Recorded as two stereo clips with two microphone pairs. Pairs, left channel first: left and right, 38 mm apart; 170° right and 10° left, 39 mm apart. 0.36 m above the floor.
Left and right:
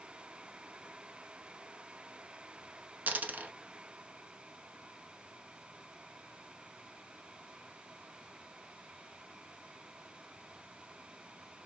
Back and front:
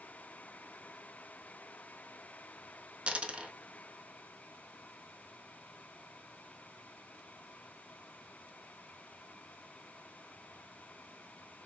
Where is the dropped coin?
50° right, 0.7 m.